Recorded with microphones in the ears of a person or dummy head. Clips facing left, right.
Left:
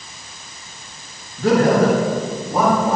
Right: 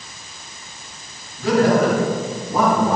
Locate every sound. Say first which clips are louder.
1.4 s a man speaking: left 1 dB; 55° left (ahead or behind), 3 m; by 3.0 s 10° left (ahead or behind), 3 m